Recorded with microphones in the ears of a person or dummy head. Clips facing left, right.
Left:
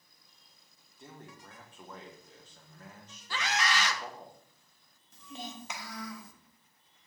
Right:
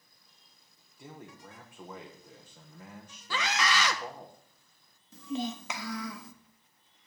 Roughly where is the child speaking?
Right.